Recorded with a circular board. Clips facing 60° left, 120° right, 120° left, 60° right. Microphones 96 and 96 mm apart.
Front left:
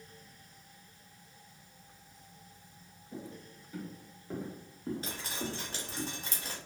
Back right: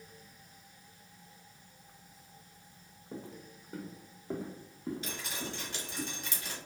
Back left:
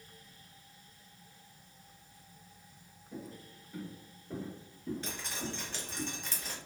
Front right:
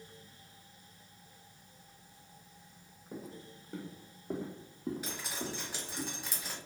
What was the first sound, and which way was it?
Footsteps, 90° right.